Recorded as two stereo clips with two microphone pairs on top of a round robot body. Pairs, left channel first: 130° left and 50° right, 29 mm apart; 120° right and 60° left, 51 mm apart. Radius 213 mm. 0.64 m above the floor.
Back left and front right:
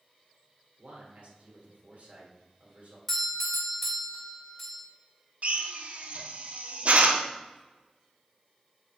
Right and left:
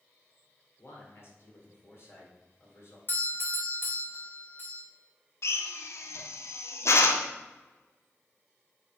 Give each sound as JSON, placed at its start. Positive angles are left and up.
{"t": 0.8, "sound": "a man speaking", "azimuth_deg": -85, "distance_m": 3.0}
{"t": 3.1, "sound": "a doorbell", "azimuth_deg": -150, "distance_m": 2.5}
{"t": 5.4, "sound": "a drill", "azimuth_deg": -90, "distance_m": 0.9}